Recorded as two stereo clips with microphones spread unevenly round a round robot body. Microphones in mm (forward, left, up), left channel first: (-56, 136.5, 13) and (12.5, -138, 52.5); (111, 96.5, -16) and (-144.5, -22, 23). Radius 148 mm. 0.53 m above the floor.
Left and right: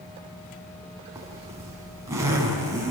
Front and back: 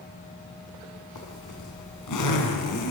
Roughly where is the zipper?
Ahead.